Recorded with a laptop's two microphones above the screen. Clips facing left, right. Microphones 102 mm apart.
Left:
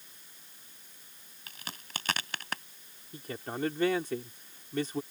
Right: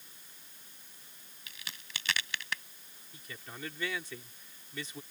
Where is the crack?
45° left (ahead or behind).